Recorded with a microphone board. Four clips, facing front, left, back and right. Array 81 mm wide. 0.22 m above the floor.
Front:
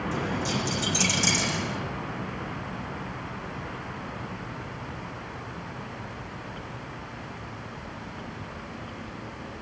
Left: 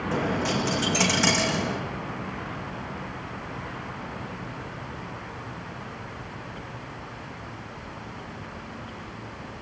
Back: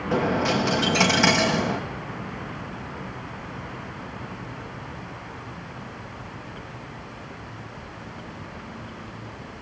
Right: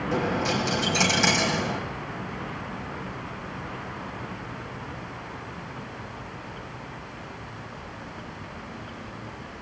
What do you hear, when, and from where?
0.1 s a dropped coin: 175° left, 1.1 m